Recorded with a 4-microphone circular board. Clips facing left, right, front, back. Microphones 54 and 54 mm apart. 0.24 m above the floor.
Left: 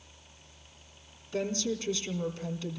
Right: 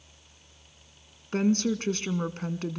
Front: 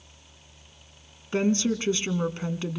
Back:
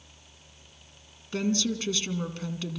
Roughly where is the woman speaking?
Ahead right.